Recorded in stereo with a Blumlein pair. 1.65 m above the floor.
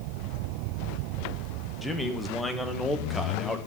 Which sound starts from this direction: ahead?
A man speaking, at 1.8 s.